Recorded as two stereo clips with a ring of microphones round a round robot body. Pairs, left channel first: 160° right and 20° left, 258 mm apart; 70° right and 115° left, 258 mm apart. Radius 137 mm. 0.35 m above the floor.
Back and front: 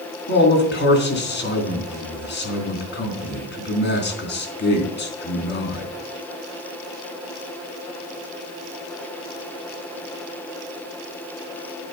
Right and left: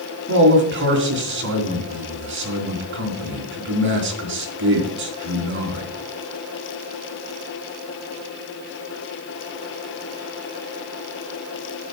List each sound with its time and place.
0.3 s a man speaking: 155° left, 3.5 m